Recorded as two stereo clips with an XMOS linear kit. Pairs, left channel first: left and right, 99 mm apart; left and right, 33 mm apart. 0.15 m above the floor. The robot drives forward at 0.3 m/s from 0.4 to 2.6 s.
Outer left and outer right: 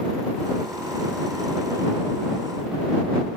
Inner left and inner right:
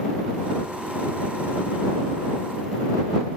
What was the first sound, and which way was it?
Only background noise.